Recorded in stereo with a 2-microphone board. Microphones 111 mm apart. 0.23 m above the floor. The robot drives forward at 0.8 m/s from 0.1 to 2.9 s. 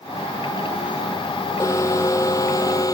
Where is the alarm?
25° left (ahead or behind); by 3.0 s 30° left (ahead or behind).